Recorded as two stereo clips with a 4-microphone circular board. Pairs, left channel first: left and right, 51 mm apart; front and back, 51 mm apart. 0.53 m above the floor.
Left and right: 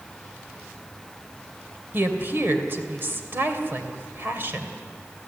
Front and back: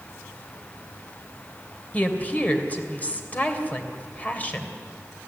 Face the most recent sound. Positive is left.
turn(degrees=-50)